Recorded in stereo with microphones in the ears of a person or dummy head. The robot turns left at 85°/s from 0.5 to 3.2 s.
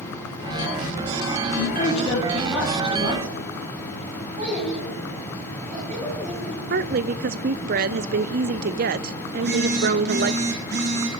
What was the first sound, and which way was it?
A woman speaking, 75° left.